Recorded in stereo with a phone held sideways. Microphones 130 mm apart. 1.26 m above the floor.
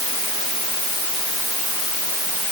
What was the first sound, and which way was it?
Only background noise.